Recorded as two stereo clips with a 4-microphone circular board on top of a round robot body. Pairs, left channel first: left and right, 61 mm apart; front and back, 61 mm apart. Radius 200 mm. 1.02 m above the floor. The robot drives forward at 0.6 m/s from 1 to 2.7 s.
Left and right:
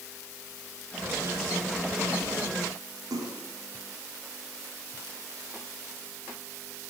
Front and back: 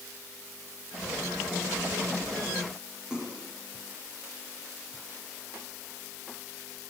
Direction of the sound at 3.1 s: 105° right.